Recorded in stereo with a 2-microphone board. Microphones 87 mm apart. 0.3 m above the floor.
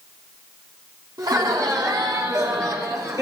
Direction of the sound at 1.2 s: 50° right (ahead or behind).